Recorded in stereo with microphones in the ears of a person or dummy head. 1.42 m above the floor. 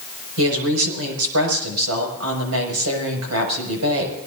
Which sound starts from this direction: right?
A woman speaking, at 0.4 s.